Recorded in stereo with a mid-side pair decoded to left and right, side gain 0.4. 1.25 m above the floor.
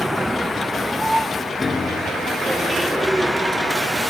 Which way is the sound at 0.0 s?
15° right.